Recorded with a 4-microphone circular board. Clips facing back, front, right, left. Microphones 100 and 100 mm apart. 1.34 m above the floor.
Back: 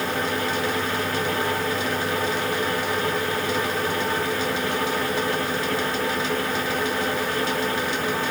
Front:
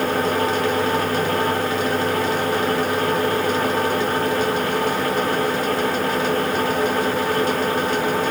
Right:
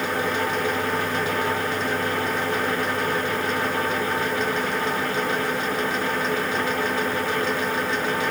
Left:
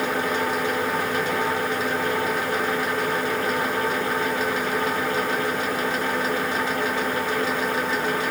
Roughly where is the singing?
No singing in this recording.